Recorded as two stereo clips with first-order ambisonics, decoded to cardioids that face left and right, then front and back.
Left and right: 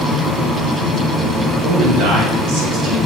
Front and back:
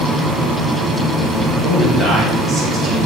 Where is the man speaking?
80° right, 5 m; by 3.1 s 90° right, 4.5 m.